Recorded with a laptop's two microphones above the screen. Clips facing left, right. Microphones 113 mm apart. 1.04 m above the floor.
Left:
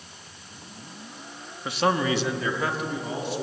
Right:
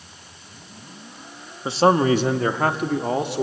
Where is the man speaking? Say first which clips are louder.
Right 7 dB; 25° right (ahead or behind), 1.5 m; by 3.4 s 65° right (ahead or behind), 2.5 m.